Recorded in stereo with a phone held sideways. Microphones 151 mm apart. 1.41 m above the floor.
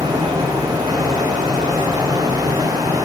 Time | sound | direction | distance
0.0 | a fan | 25° right (ahead or behind) | 0.7 m